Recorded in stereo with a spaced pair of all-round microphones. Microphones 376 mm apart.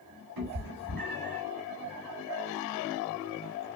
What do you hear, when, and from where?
0.4 s a cat meowing: 70° right (ahead or behind), 1.8 m